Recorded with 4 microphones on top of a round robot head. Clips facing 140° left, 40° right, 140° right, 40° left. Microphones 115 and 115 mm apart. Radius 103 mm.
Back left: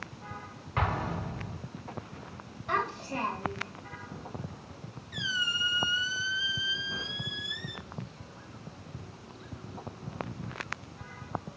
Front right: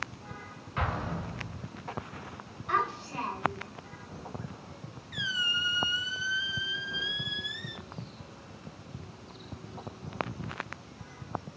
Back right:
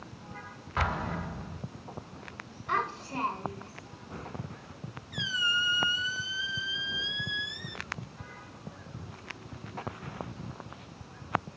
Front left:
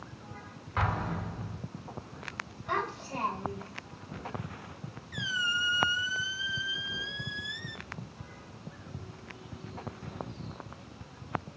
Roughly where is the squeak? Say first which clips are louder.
Even, back right 1 dB; behind.